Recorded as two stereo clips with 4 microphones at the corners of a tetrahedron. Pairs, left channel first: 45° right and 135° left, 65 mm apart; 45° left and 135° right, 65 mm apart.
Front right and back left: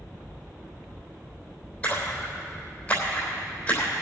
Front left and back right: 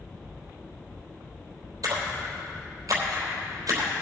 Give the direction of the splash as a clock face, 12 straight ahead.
4 o'clock.